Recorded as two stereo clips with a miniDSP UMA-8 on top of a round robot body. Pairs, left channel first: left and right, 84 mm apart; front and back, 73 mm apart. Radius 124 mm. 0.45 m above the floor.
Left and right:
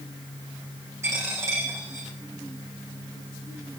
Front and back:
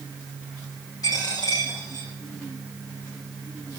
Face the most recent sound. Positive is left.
turn(degrees=-35)